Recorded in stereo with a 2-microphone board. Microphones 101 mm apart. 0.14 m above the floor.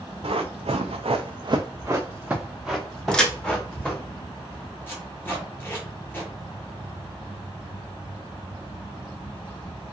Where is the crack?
10° left (ahead or behind), 0.7 m.